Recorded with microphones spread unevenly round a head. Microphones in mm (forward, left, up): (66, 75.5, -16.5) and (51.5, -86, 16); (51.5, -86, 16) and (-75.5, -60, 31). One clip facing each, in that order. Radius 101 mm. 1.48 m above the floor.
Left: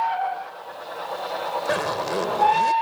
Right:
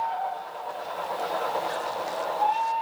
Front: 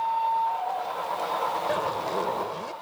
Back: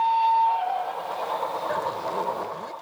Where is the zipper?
75° left.